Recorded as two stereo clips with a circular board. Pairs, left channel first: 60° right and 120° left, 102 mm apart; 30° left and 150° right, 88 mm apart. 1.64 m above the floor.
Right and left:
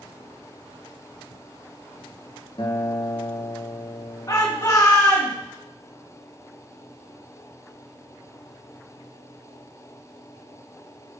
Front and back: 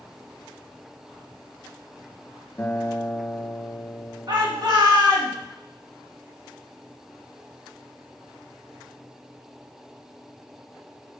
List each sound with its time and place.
2.6 s a guitar: 35° right, 0.7 m
4.3 s a shout: 115° right, 1.9 m